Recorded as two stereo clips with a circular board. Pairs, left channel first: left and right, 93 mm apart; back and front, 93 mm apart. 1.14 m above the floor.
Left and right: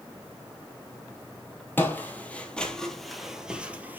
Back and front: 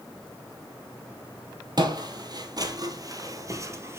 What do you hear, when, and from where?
1.8 s footsteps: 25° left, 1.8 m; by 4.0 s 35° right, 1.3 m